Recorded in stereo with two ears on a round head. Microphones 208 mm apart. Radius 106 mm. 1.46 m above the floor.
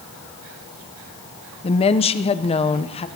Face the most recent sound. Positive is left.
turn(degrees=25)  # may be behind; listen again after turning